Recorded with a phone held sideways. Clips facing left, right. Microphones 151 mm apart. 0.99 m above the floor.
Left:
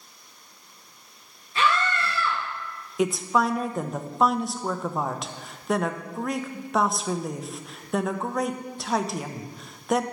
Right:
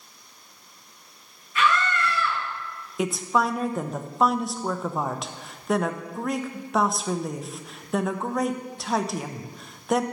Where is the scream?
30° left (ahead or behind), 1.1 m.